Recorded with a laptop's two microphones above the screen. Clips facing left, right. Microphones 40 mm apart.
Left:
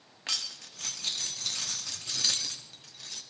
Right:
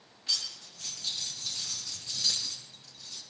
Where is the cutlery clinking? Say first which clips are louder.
Even; 75° left (ahead or behind), 1.2 m.